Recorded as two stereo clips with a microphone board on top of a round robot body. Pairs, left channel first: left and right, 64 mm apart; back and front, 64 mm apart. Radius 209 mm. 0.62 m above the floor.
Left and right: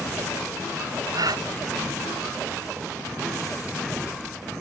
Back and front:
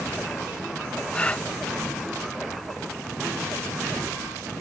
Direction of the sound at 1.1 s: 105° right.